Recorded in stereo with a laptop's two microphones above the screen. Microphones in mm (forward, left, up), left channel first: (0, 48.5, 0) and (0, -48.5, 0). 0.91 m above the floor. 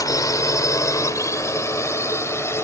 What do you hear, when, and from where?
0.0 s a drone: 40° left (ahead or behind); by 2.6 s 30° left (ahead or behind)